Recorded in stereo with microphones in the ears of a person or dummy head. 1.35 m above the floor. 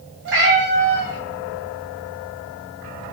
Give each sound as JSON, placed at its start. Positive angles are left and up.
{"t": 0.2, "sound": "a cat meowing", "side_deg": -60, "distance_m": 2.0}